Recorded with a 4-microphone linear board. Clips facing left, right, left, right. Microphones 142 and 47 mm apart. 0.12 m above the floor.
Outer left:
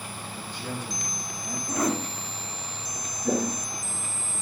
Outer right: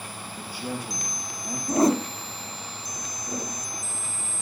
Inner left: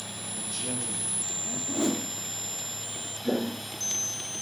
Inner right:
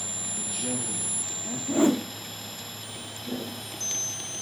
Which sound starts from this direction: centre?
A man speaking, at 0.4 s.